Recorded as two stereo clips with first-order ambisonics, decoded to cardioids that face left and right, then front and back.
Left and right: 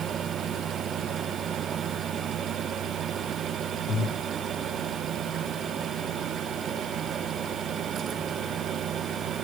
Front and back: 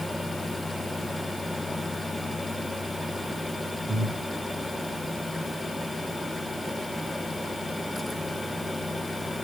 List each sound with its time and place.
3.9 s breathing: 120° left, 1.3 m